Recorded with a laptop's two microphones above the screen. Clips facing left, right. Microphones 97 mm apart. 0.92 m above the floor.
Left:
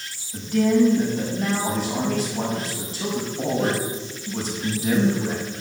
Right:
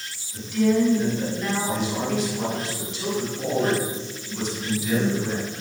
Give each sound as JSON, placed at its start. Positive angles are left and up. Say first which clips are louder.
{"t": 0.3, "sound": "a man speaking", "louder": "left 2 dB", "side_deg": 40, "distance_m": 6.0}